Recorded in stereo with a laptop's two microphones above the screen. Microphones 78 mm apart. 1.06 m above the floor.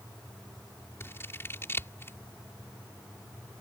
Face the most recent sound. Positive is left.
turn(degrees=30)  # may be behind; listen again after turning